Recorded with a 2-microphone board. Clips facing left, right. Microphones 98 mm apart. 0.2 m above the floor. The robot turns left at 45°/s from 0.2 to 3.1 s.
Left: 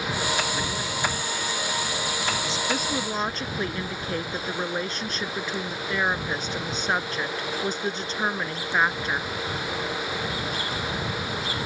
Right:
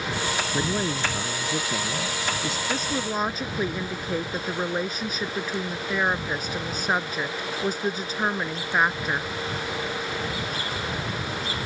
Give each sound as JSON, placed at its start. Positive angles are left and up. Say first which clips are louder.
{"t": 0.5, "sound": "a man speaking", "louder": "right 3 dB", "azimuth_deg": -35}
{"t": 2.7, "sound": "a woman speaking", "louder": "even", "side_deg": 10}